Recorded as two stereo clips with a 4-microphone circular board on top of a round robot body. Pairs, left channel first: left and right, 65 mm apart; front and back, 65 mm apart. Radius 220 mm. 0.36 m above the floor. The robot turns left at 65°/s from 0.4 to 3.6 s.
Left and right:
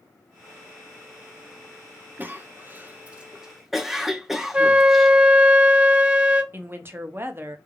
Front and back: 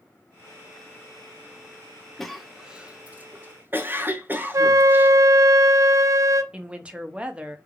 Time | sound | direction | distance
2.2 | a cough | 80° right | 0.9 m
4.5 | a flute | 160° right | 0.6 m
6.5 | a woman speaking | 115° right | 0.9 m